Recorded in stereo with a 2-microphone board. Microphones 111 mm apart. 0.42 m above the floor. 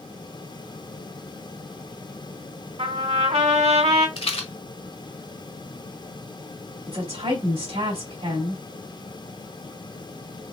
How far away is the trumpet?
About 2.5 m.